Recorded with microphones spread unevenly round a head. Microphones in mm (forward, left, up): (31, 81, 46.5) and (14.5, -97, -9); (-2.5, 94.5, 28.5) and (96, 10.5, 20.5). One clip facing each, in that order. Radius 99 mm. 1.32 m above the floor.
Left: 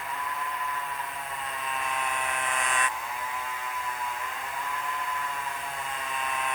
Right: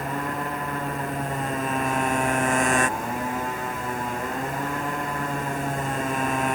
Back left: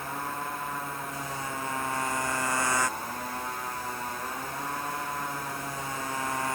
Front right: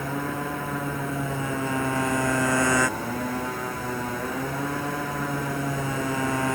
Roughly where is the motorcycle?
Ahead right.